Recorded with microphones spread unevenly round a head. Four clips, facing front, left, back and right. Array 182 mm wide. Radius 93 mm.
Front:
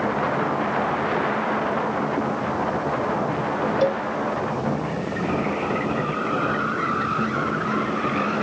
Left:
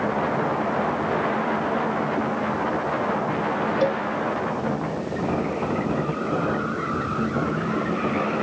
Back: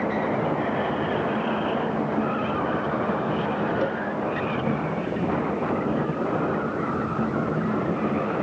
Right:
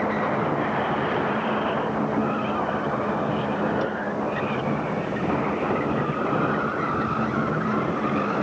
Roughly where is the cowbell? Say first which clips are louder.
Left 5 dB, front 5 dB; ahead left.